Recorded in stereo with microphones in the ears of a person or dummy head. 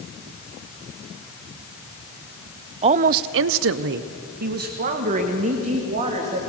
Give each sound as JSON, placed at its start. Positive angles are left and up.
{"t": 2.8, "sound": "a woman speaking", "side_deg": -35, "distance_m": 0.6}